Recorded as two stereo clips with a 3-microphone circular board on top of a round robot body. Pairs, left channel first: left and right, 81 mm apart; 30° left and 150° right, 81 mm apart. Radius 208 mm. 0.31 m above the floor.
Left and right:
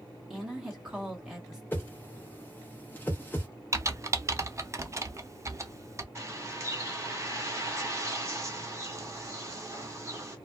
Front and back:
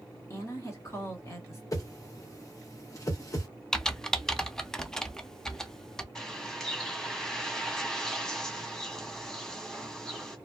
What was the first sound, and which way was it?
A woman speaking, 10° right.